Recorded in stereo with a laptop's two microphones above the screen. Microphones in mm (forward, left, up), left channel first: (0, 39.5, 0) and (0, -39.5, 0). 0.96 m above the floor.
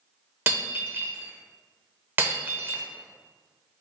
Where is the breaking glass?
30° right (ahead or behind), 0.7 m.